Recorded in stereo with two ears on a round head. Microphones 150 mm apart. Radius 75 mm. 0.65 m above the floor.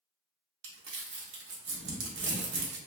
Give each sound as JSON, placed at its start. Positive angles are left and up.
{"t": 0.6, "sound": "crumpling", "side_deg": -80, "distance_m": 0.7}